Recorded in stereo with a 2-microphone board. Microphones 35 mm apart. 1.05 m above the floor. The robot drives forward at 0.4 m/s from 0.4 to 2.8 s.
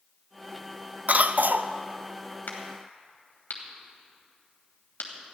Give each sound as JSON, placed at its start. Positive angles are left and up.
{"t": 1.1, "sound": "a cough", "side_deg": -50, "distance_m": 0.6}
{"t": 2.5, "sound": "a crack", "side_deg": 75, "distance_m": 2.5}